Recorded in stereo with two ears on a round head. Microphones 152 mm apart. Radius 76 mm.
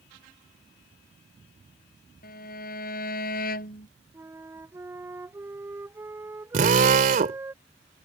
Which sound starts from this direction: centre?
A flute, at 4.1 s.